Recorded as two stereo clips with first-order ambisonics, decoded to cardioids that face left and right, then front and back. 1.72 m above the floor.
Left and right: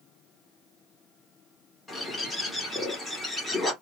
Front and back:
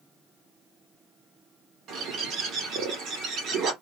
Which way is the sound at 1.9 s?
170° left.